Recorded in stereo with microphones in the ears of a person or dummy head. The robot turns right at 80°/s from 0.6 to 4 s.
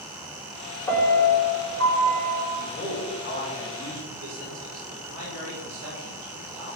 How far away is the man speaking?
About 6 m.